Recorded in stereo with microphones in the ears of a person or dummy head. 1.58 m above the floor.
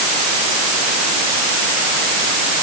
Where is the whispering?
I don't hear whispering.